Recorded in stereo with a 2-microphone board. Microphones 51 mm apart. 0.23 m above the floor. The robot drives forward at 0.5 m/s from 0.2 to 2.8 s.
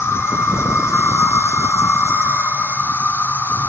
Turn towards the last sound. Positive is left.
turn(degrees=50)  # may be behind; listen again after turning